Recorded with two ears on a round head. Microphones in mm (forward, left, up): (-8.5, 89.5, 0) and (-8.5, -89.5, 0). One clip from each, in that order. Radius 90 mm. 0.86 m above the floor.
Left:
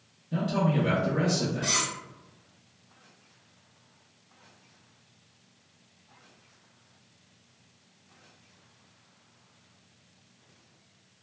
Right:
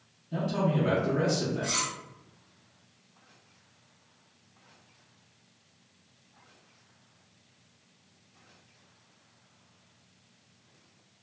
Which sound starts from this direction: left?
Cutlery clinking, at 1.6 s.